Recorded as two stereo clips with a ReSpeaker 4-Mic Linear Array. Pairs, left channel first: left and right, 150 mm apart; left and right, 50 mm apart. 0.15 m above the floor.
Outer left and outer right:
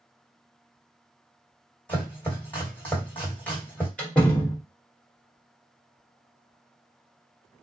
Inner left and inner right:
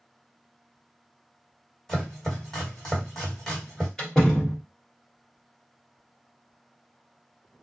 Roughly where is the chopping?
Centre.